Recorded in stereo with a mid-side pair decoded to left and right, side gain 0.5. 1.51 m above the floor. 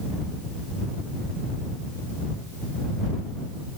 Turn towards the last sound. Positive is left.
No sound to turn to.